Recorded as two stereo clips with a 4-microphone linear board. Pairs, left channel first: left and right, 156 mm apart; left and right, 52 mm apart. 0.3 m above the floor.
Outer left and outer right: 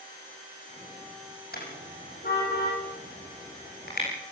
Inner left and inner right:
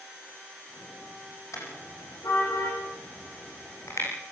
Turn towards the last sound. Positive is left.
turn(degrees=75)  # may be behind; listen again after turning